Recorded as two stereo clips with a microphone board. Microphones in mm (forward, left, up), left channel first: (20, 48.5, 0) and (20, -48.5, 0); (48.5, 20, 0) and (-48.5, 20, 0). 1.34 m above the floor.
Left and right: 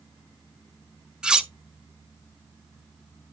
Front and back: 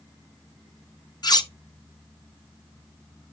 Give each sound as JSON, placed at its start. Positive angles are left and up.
{"t": 1.2, "sound": "cutlery clinking", "azimuth_deg": -10, "distance_m": 0.6}